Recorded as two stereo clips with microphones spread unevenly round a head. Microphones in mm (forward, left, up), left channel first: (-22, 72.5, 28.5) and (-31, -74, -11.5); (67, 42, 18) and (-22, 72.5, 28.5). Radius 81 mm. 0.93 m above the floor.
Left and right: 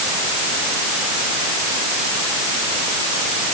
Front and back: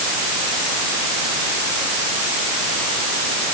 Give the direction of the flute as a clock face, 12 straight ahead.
I don't hear a flute.